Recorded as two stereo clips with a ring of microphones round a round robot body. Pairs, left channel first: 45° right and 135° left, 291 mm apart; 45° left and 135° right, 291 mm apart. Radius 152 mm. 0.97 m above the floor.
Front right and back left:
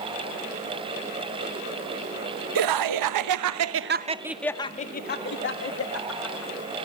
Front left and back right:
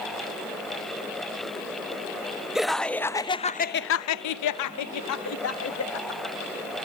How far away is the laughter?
About 1.3 m.